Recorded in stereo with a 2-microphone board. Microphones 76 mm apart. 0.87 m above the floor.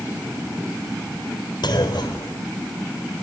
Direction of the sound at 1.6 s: 75° left (ahead or behind).